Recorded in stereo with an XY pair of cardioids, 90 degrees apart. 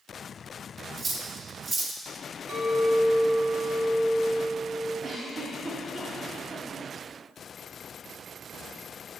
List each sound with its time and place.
1.0 s cutlery clinking: 40° right, 1.0 m
2.5 s a clink: 50° right, 2.5 m
5.0 s a giggle: 45° right, 2 m